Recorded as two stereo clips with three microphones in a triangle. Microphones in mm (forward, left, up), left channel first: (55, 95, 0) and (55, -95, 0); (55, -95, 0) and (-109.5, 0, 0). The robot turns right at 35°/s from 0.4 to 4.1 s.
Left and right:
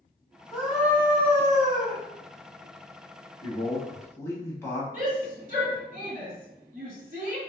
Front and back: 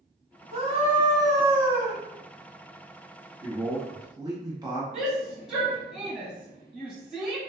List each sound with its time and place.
0.5 s a scream: straight behind, 1.4 m; by 2.0 s 130° right, 1.4 m
3.4 s a man speaking: 120° left, 1.0 m; by 4.8 s 140° left, 1.0 m
4.9 s a shout: 120° right, 1.9 m